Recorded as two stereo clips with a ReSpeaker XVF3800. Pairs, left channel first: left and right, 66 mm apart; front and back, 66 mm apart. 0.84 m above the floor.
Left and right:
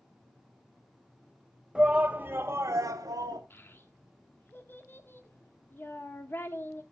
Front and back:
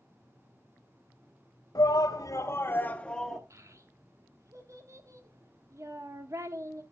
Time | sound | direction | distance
1.8 | a shout | 15° right | 1.3 m
3.5 | a child speaking | 145° left | 1.3 m